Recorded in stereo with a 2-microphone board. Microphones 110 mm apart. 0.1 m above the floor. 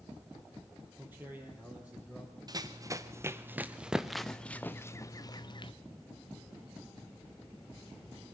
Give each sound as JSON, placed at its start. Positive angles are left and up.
{"t": 1.0, "sound": "a man speaking", "side_deg": -20, "distance_m": 3.0}
{"t": 2.5, "sound": "running footsteps", "side_deg": -35, "distance_m": 1.7}